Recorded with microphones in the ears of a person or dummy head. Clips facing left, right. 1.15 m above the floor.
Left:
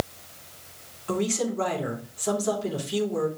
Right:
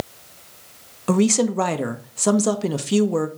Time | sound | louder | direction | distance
1.1 | a woman speaking | right 8 dB | 80° right | 1.3 m